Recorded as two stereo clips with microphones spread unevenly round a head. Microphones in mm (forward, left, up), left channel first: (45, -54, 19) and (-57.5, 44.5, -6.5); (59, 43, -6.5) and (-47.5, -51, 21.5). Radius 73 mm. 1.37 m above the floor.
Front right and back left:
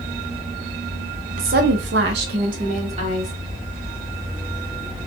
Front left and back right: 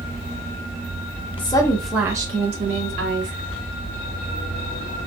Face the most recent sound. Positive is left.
turn(degrees=-170)